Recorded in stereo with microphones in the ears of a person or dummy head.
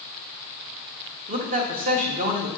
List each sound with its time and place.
1.3 s a man speaking: 40° right (ahead or behind), 1.6 m